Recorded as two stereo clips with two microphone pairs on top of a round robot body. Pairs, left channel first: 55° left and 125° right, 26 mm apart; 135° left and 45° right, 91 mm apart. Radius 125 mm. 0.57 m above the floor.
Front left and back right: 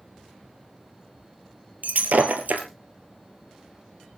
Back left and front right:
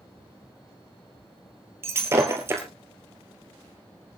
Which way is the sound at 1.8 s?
110° right.